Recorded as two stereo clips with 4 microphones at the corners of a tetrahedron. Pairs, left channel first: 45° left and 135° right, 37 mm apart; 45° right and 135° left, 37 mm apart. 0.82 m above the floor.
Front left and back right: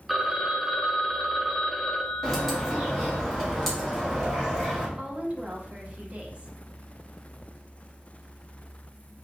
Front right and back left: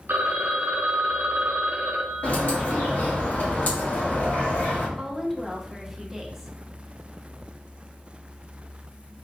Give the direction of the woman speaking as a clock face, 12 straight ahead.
5 o'clock.